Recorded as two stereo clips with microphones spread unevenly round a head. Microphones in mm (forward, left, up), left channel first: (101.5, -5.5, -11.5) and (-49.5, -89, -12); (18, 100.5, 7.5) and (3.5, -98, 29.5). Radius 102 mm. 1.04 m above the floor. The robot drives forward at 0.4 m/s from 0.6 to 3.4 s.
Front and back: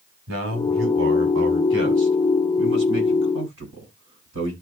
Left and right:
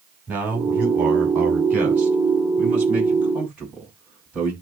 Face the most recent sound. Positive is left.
turn(degrees=180)